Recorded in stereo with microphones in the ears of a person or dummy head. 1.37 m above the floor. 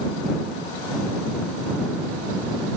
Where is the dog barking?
No dog barking in this recording.